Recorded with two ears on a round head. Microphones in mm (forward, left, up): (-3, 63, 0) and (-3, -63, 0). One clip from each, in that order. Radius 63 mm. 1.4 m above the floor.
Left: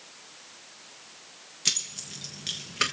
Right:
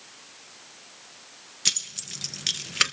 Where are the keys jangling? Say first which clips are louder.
Right 2 dB; 25° right (ahead or behind), 1.0 m; by 2.9 s 65° right (ahead or behind), 0.9 m.